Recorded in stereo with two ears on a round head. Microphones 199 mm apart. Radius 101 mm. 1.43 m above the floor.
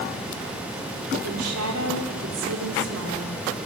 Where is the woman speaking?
85° right, 5 m.